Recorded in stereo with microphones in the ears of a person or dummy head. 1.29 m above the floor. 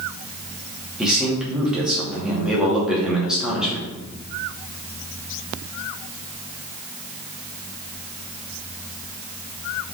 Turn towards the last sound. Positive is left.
turn(degrees=-15)  # may be behind; listen again after turning